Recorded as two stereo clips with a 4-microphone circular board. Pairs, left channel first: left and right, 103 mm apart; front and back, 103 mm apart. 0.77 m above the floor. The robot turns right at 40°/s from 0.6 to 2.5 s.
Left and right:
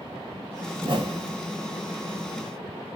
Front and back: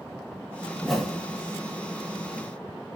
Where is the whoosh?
95° right, 0.8 m; by 1.4 s 70° right, 0.8 m.